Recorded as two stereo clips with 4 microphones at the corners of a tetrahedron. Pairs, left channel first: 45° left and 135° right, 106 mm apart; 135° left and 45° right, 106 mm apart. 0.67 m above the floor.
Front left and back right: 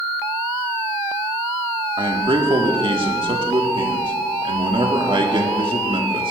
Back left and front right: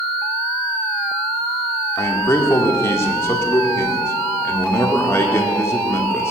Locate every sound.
2.0 s a man speaking: 165° right, 1.7 m